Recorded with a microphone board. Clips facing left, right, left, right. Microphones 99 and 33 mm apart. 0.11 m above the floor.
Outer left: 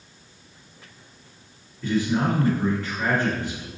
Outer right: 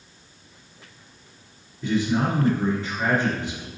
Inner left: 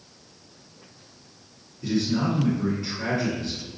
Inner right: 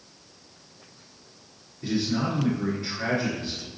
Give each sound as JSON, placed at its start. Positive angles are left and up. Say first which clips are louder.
{"t": 1.8, "sound": "a man speaking", "louder": "even, inner left 2 dB", "side_deg": -20, "distance_m": 1.4}